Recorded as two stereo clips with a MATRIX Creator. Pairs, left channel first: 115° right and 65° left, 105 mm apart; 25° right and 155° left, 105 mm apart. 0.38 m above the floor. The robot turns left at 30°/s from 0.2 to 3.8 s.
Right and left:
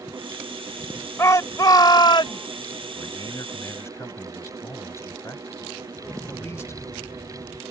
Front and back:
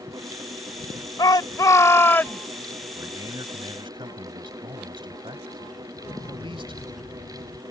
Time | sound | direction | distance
1.2 | a shout | 60° right | ?
3.0 | a man speaking | 145° right | ?
5.9 | an explosion | 50° right | ?